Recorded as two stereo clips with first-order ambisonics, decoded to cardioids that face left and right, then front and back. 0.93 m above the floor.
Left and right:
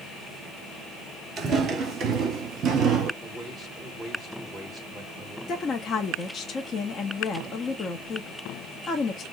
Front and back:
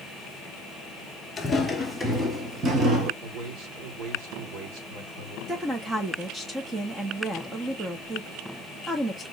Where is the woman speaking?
120° left, 0.6 m.